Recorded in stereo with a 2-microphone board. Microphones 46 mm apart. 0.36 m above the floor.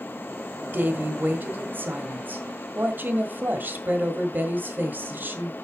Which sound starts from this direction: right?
A woman speaking, at 0.7 s.